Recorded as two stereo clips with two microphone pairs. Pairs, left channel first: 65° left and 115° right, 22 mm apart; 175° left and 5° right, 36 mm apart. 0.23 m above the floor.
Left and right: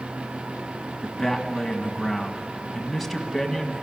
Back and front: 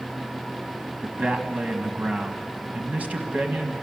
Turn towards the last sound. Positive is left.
turn(degrees=-20)